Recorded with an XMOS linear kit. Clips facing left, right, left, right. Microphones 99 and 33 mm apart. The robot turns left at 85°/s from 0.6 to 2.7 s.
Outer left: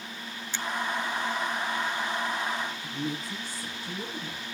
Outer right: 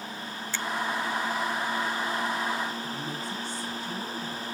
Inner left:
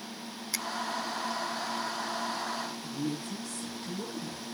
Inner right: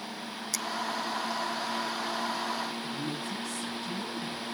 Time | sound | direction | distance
0.5 | a finger snap | 20° left (ahead or behind) | 0.6 m
2.8 | a woman speaking | 45° left (ahead or behind) | 10 m